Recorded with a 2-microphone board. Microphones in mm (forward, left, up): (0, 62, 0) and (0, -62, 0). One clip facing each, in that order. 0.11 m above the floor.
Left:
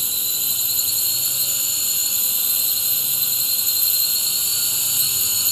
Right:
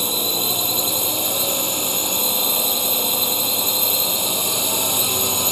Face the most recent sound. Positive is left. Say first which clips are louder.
# right 16 dB
turn(degrees=-65)  # may be behind; listen again after turning